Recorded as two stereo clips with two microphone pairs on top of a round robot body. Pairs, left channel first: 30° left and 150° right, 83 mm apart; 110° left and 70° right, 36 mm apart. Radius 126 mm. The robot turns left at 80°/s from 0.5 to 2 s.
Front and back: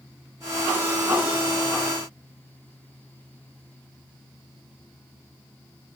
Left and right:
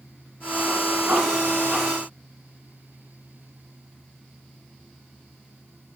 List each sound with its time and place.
Only background noise.